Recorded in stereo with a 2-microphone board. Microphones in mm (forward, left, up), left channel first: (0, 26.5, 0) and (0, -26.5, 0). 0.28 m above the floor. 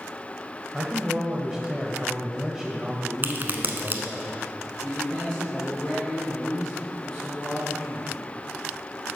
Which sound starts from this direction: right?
A crack, at 3.2 s.